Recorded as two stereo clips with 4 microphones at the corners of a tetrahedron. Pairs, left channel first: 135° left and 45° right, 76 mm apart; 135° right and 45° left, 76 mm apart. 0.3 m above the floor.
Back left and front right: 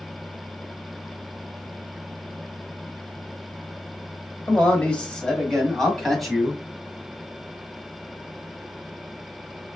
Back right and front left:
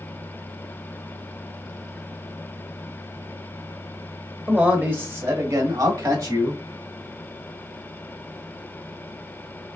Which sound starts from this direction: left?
A man speaking, at 4.5 s.